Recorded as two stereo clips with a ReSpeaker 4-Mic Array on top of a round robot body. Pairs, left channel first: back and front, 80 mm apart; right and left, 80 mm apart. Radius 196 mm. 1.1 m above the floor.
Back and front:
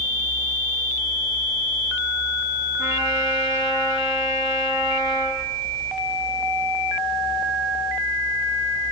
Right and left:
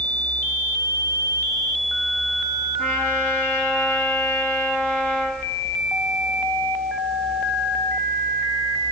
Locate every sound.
2.8 s a trumpet: 35° right, 5.5 m